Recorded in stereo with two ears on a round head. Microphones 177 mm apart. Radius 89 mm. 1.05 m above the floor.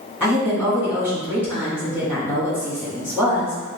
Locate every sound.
0.2 s a woman speaking: 10° right (ahead or behind), 2.0 m